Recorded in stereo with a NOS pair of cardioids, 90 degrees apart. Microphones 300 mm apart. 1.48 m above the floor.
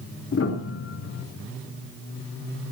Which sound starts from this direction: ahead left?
A piano, at 0.3 s.